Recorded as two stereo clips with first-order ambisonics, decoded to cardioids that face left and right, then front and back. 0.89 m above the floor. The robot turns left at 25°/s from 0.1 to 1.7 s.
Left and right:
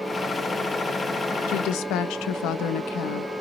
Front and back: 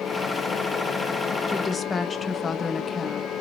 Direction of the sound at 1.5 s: 80° left.